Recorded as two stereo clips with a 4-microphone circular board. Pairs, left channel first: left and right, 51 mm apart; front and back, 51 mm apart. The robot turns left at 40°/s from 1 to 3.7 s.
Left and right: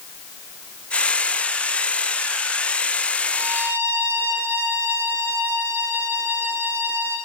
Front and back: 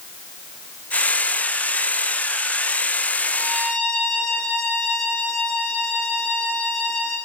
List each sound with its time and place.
3.3 s a violin: 65° right, 9 m; by 7.2 s 80° right, 9 m